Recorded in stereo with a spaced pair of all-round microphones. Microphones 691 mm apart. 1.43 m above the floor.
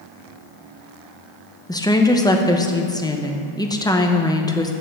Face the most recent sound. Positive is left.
turn(degrees=5)  # may be behind; listen again after turning